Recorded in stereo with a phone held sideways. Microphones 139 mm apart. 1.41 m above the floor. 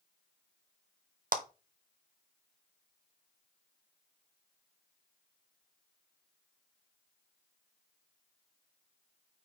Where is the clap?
80° right, 0.8 m.